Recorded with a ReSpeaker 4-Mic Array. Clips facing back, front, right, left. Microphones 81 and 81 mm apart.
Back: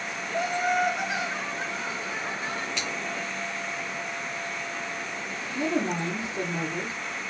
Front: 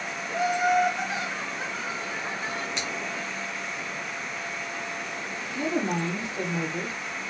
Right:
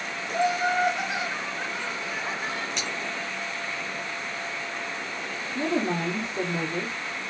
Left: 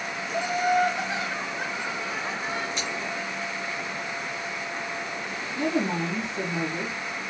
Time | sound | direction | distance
0.3 | laughter | 70° right | 1.6 m
2.8 | scissors | 70° right | 1.9 m
5.5 | a woman speaking | 130° right | 1.7 m